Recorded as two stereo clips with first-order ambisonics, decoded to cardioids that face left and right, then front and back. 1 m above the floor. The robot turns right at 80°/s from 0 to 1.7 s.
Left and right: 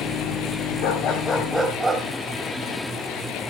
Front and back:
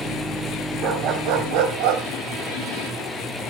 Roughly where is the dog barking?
Behind left.